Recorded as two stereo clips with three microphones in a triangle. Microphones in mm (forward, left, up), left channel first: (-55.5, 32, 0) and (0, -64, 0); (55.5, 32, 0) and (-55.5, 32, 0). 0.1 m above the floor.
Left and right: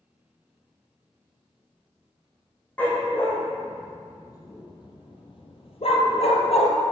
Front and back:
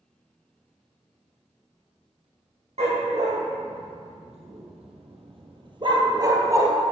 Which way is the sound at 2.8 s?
165° right.